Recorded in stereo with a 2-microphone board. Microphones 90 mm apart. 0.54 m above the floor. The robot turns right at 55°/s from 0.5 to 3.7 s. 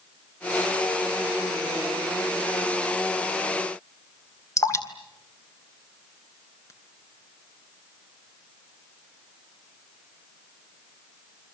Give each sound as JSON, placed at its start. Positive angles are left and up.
{"t": 4.6, "sound": "dripping", "side_deg": 40, "distance_m": 3.5}